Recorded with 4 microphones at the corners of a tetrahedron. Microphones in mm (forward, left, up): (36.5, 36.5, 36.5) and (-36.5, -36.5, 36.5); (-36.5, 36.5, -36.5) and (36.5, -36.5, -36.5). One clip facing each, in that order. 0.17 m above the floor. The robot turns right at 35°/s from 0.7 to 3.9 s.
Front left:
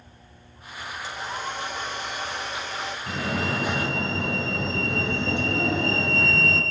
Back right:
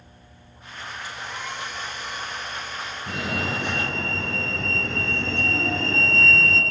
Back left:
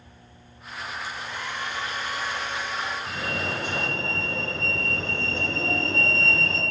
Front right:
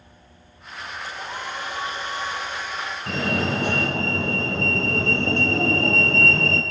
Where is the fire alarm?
60° right, 5.5 m; by 6.6 s 30° right, 5.5 m.